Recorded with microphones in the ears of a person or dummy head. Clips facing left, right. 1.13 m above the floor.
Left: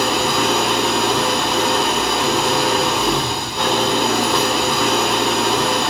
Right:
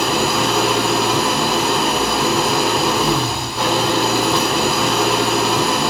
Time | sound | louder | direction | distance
0.0 | an engine running | even | centre (ahead or behind) | 2.5 m